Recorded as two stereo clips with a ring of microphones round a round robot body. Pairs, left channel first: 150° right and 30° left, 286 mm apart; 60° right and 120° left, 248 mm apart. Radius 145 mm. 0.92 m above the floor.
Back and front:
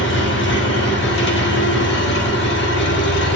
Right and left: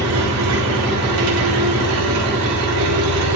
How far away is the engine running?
About 1.4 m.